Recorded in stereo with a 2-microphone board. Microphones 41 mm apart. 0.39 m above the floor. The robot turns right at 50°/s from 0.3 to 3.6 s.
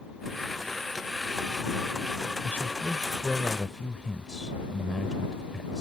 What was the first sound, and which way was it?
A man speaking, 110° left.